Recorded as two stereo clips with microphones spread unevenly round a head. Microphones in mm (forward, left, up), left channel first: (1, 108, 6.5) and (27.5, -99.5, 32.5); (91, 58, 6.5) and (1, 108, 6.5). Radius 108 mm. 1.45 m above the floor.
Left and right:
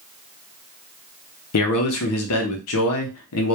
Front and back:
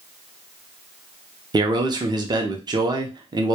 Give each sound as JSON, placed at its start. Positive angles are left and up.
{"t": 1.5, "sound": "a man speaking", "azimuth_deg": 110, "distance_m": 0.6}